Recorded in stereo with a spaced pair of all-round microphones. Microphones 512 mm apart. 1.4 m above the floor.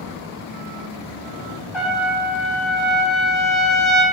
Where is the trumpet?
65° left (ahead or behind), 1.1 m.